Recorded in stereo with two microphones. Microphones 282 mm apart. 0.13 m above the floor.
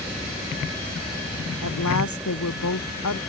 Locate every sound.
1.6 s a woman speaking: 80° left